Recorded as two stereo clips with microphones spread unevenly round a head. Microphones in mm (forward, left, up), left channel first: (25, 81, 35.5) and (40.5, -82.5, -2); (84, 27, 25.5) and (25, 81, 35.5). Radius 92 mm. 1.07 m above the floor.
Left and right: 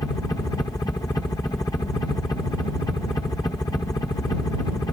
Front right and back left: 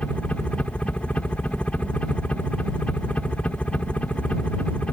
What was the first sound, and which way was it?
A helicopter, 25° left.